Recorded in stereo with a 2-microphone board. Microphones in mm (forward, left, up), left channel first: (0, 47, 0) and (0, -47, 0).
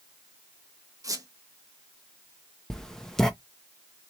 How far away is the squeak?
About 0.8 m.